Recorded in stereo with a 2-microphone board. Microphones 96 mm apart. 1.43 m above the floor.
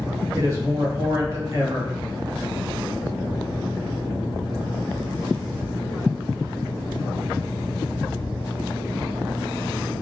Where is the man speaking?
30° right (ahead or behind), 1.7 m.